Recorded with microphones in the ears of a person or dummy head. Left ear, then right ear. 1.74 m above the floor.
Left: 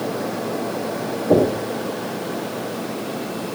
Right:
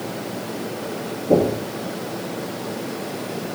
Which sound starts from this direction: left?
Knocking, at 1.3 s.